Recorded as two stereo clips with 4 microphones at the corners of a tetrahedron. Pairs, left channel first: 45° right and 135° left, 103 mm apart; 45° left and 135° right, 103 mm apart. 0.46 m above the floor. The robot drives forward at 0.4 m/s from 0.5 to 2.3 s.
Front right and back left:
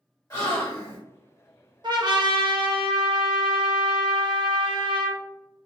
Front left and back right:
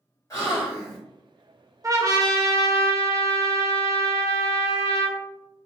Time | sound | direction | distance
0.3 | a gasp | straight ahead | 1.3 m
1.8 | a trumpet | 170° left | 0.5 m